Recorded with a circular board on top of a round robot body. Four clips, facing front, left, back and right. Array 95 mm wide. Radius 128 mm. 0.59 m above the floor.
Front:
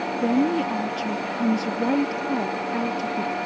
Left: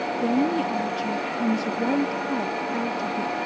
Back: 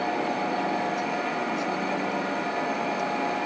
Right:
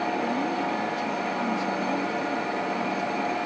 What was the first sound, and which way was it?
A woman speaking, 35° left.